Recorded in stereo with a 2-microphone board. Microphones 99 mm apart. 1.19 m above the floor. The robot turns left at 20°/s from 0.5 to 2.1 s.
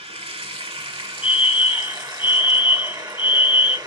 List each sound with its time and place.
0.0 s running water: 110° right, 2.5 m; by 3.9 s 140° right, 2.5 m
1.2 s a fire alarm: 60° left (ahead or behind), 1.9 m; by 3.8 s 50° left (ahead or behind), 1.9 m